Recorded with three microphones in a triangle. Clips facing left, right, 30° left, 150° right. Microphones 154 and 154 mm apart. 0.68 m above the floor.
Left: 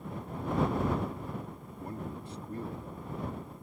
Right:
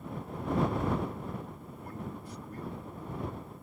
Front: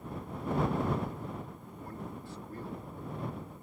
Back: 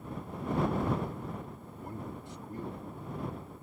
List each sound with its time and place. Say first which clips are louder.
1.8 s a man speaking: left 2 dB, back 1 dB; 145° left